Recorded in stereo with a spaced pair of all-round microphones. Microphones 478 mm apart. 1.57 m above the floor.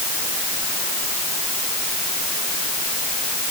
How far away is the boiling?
I don't hear boiling.